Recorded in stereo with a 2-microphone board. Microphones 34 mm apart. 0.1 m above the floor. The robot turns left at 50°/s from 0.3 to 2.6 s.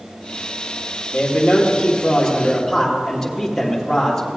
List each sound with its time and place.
1.1 s a man speaking: 75° left, 3 m; by 4.3 s 5° left, 3 m